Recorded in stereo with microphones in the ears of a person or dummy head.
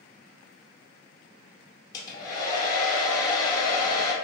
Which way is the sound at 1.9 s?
25° left (ahead or behind).